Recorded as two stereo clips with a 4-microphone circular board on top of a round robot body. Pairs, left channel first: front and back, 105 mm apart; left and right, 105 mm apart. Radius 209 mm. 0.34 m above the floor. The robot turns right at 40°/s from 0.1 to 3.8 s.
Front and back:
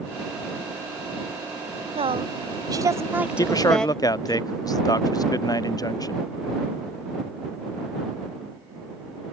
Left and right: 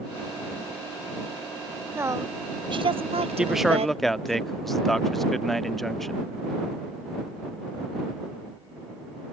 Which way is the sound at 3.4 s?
15° right.